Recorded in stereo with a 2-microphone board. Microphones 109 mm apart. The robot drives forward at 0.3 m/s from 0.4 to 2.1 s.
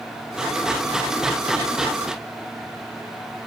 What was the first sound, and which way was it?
Only background noise.